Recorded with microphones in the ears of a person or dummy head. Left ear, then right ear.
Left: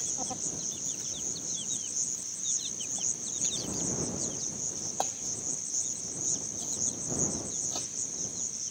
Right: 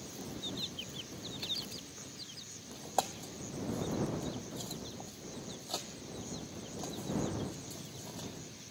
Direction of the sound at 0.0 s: 70° left (ahead or behind).